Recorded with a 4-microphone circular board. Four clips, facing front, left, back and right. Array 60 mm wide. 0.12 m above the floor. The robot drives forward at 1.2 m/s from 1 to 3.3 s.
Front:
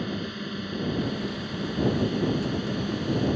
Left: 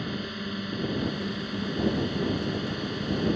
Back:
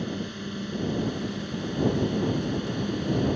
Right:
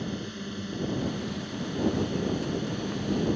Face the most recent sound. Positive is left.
turn(degrees=80)